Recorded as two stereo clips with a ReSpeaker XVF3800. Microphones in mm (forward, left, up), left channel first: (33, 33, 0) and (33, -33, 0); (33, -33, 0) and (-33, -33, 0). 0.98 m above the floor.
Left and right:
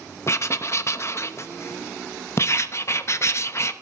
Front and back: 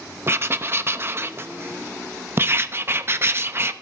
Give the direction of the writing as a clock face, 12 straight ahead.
8 o'clock.